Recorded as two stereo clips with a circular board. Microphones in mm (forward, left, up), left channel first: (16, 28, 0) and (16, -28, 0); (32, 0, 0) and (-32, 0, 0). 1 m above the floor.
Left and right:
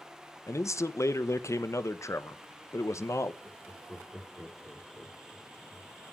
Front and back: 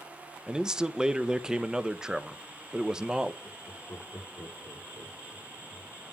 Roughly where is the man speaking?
Left.